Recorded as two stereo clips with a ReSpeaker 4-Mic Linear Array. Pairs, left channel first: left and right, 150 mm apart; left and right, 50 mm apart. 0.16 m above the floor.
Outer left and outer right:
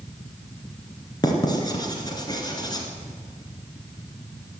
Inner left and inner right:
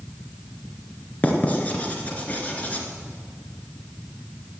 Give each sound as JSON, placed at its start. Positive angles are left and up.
{"t": 1.2, "sound": "writing", "side_deg": 30, "distance_m": 2.0}